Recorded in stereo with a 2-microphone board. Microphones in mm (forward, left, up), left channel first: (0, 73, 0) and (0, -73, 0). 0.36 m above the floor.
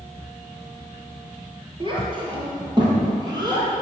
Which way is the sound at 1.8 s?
35° right (ahead or behind).